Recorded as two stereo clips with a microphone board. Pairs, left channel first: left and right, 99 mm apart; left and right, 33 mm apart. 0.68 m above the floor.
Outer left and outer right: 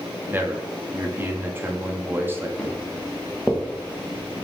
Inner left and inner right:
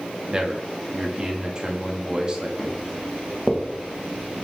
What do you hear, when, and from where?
0.3 s a man speaking: 25° right (ahead or behind), 0.6 m
2.6 s footsteps: 10° left (ahead or behind), 1.5 m; by 4.5 s 35° right (ahead or behind), 1.0 m